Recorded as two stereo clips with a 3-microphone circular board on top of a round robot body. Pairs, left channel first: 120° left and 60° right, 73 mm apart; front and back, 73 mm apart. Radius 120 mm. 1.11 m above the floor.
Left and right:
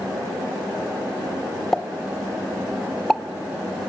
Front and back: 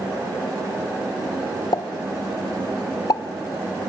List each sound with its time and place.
1.7 s a pop: 35° left, 0.9 m